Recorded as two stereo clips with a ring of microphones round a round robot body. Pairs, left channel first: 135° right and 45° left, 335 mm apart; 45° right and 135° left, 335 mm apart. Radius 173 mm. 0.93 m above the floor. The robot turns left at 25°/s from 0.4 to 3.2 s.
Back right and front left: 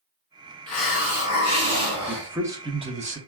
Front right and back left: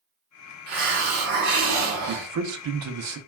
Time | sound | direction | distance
0.7 | a hiss | 140° left | 1.4 m
2.1 | a man speaking | 135° left | 0.6 m